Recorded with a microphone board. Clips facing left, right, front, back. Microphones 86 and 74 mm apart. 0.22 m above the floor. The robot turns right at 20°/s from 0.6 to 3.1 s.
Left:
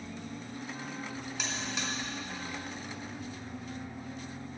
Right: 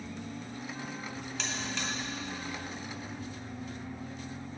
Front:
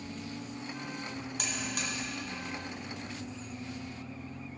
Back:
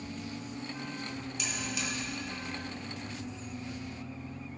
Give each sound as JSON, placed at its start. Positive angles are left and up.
{"t": 1.4, "sound": "a buzzer", "azimuth_deg": 5, "distance_m": 2.0}